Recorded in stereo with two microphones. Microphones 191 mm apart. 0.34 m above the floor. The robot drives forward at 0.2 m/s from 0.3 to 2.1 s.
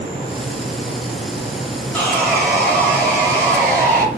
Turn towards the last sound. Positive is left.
turn(degrees=5)  # may be behind; listen again after turning